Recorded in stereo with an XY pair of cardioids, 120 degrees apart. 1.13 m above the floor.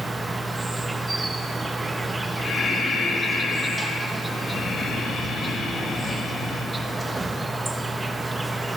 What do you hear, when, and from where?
0.0 s an insect: 10° right, 0.8 m
2.4 s breathing: 50° left, 1.5 m